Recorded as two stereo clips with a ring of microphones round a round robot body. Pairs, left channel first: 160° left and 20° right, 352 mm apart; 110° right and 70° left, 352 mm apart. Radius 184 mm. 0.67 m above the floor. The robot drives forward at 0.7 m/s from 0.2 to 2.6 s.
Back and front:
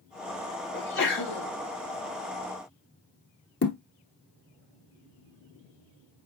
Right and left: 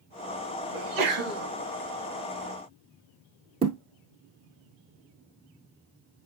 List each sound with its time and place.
0.7 s a sneeze: 100° left, 5 m; by 1.5 s 105° left, 5 m
3.6 s a thud: 130° left, 0.7 m